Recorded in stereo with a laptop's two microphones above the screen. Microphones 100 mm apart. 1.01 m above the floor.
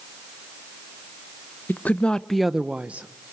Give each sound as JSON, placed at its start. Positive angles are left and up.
{"t": 1.7, "sound": "a woman speaking", "side_deg": 20, "distance_m": 0.6}